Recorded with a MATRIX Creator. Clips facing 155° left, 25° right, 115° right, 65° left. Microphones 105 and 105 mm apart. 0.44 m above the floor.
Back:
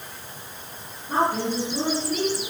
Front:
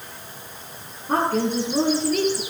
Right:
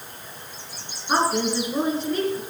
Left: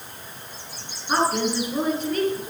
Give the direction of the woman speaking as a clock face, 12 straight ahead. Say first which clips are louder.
Front 2 dB, even; 1 o'clock.